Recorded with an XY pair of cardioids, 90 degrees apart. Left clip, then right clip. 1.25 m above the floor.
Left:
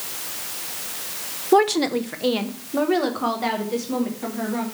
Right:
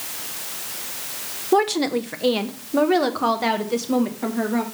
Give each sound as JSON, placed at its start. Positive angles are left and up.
{"t": 1.5, "sound": "a woman speaking", "azimuth_deg": 15, "distance_m": 0.6}